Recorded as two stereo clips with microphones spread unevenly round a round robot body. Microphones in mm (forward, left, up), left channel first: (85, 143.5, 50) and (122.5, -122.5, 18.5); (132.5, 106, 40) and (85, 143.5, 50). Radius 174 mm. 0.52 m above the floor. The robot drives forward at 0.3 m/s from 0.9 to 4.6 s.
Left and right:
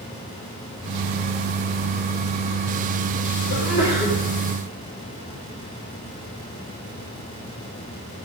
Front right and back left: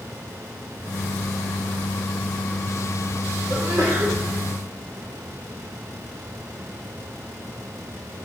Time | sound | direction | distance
3.5 | a sneeze | 125° left | 1.4 m